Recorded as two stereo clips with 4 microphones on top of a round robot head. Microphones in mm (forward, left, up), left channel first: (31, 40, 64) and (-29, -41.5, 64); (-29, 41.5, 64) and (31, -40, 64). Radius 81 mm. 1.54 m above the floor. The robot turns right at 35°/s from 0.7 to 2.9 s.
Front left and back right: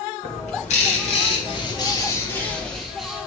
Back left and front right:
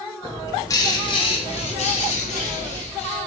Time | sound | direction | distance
0.2 | a bird | 70° left | 1.7 m